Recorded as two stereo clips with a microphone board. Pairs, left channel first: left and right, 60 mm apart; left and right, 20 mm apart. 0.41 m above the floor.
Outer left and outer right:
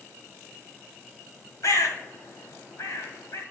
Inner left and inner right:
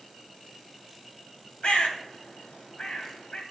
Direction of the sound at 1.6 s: 70° left (ahead or behind).